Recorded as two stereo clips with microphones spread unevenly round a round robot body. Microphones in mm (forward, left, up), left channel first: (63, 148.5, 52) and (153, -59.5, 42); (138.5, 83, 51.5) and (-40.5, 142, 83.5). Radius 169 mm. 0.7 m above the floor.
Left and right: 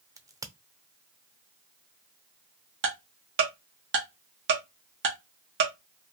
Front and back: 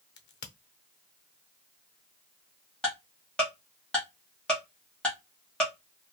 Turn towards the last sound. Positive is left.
turn(degrees=-100)